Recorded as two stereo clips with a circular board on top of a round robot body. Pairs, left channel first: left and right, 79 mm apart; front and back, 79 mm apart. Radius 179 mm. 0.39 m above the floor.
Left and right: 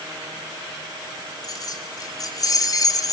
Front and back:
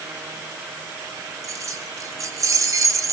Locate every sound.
1.4 s keys jangling: 130° left, 4 m; by 3.1 s 135° left, 2.5 m